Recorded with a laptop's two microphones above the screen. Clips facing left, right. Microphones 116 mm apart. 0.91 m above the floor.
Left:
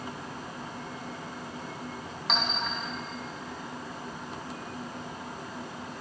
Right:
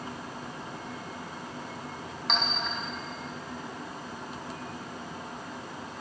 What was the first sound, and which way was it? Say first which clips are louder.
A clink: left 1 dB; centre (ahead or behind).